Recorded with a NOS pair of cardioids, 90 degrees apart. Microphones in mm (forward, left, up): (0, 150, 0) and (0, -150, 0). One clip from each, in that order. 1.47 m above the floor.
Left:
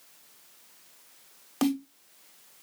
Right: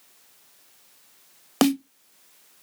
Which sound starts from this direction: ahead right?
A snare drum, at 1.6 s.